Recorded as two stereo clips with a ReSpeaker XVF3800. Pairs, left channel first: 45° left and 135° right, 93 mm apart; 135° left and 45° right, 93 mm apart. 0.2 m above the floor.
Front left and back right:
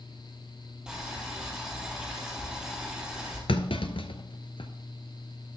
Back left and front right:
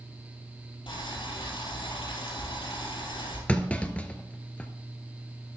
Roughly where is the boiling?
Behind left.